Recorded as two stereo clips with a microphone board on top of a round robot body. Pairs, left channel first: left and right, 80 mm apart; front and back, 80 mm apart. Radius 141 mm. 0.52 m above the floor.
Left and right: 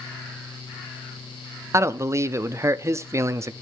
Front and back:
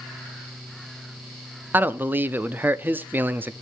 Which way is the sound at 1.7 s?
125° right.